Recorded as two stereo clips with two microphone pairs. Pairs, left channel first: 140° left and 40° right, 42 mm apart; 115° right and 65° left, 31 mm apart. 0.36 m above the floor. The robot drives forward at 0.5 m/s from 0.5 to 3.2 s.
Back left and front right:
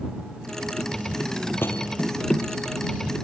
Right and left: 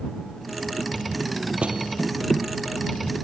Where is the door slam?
115° left.